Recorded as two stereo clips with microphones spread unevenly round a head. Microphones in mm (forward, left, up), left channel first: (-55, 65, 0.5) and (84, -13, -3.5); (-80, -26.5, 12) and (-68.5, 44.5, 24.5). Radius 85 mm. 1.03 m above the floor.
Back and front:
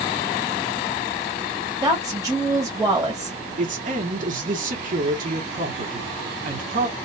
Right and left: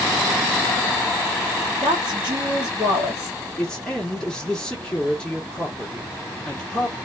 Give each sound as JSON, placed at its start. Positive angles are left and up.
{"t": 1.8, "sound": "a woman speaking", "azimuth_deg": 35, "distance_m": 1.3}
{"t": 3.6, "sound": "a man speaking", "azimuth_deg": -30, "distance_m": 1.1}